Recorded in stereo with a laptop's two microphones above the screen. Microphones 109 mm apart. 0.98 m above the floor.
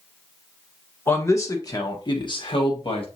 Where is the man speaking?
20° left (ahead or behind), 1.1 m; by 3.0 s 60° left (ahead or behind), 1.6 m.